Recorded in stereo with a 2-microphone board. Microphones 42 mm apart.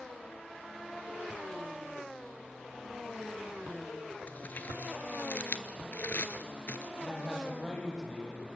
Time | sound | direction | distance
4.3 | crumpling | 50° left (ahead or behind) | 1.1 m
7.0 | a man speaking | 15° left (ahead or behind) | 7 m